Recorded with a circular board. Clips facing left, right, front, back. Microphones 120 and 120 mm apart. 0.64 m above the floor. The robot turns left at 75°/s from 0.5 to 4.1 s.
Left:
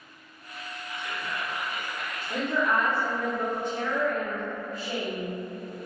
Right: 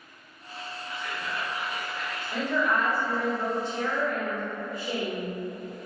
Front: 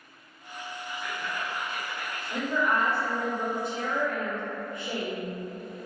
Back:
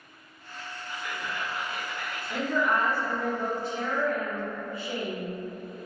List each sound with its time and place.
0.9 s whispering: 85° right, 1.9 m; by 3.0 s 115° left, 1.9 m
2.3 s a woman speaking: 120° left, 1.0 m; by 5.3 s 15° right, 1.0 m